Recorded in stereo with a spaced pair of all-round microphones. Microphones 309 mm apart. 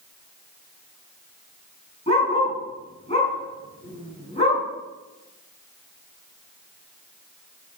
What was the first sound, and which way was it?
A dog barking, 20° left (ahead or behind).